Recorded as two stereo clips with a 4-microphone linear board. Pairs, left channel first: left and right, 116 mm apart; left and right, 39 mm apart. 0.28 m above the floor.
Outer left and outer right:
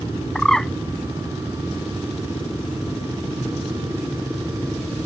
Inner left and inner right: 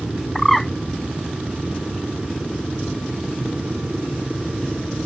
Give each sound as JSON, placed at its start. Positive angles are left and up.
{"t": 0.3, "sound": "a bird", "side_deg": 5}